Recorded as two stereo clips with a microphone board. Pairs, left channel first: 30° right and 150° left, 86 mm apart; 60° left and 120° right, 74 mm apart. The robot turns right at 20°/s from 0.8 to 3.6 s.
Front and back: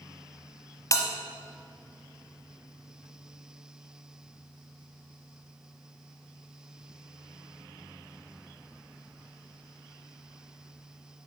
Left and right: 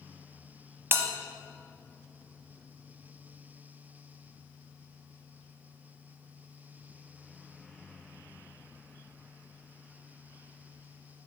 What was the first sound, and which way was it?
A bell, 70° right.